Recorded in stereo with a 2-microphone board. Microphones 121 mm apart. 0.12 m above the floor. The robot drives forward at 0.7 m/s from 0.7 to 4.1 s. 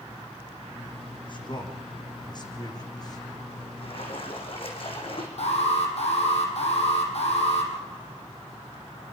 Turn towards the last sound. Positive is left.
turn(degrees=60)  # may be behind; listen again after turning